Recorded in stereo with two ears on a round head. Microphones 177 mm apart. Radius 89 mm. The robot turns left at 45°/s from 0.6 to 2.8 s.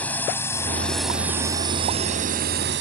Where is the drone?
10° left (ahead or behind); by 2.8 s 60° right (ahead or behind).